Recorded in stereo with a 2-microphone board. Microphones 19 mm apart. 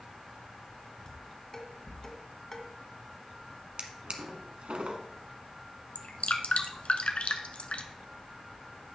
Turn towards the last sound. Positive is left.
turn(degrees=85)